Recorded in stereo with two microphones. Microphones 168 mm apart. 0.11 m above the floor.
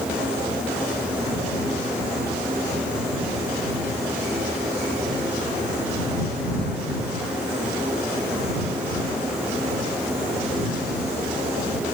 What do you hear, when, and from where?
Only background noise.